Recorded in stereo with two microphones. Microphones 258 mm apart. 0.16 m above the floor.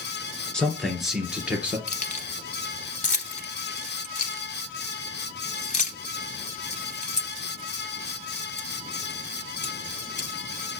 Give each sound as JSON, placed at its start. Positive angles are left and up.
{"t": 0.5, "sound": "a man speaking", "side_deg": 5, "distance_m": 2.0}
{"t": 1.9, "sound": "keys jangling", "side_deg": 30, "distance_m": 0.9}